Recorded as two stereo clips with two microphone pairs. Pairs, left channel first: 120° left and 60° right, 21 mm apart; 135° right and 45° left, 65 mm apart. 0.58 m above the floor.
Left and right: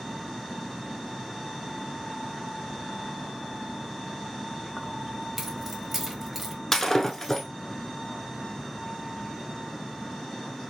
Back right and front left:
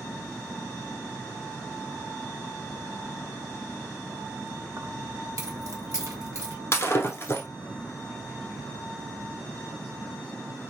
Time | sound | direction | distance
4.8 | keys jangling | 25° left | 1.1 m
6.7 | breaking glass | 175° right | 0.9 m